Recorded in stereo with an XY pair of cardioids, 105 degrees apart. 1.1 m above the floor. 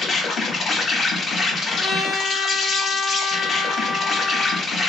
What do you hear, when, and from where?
0.0 s an insect: 50° left, 0.8 m
1.6 s a trumpet: 65° left, 0.8 m